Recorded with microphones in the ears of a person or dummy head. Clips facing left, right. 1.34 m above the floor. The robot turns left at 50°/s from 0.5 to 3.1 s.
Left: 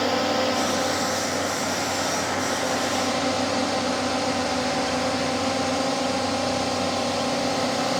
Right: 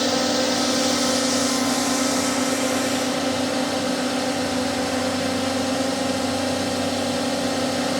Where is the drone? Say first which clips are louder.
Right 2 dB; 30° right; by 8.0 s 160° right.